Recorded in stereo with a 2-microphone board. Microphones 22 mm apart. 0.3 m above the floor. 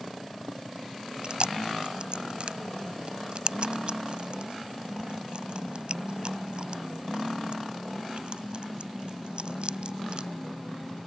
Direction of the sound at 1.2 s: 50° right (ahead or behind).